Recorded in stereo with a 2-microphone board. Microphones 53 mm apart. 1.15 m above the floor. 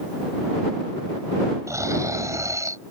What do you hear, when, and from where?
1.7 s snoring: 80° right